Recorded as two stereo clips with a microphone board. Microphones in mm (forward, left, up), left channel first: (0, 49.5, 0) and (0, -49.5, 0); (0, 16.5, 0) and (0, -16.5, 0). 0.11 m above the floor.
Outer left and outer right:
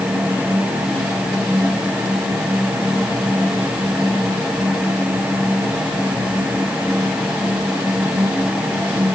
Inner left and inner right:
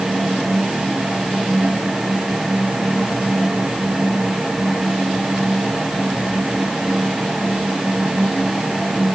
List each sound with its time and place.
Only background noise.